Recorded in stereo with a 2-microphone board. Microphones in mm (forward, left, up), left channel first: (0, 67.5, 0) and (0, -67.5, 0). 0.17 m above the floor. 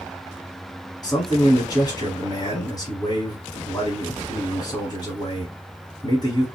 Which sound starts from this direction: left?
A man speaking, at 1.0 s.